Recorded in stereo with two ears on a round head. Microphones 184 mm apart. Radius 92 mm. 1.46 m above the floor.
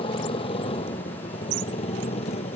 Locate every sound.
0.0 s a motorcycle: 25° left (ahead or behind); by 2.6 s 30° left (ahead or behind)